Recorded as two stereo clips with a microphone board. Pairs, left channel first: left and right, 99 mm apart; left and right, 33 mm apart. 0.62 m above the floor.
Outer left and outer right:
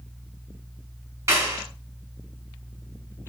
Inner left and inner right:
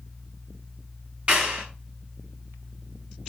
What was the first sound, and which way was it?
A clap, 35° right (ahead or behind).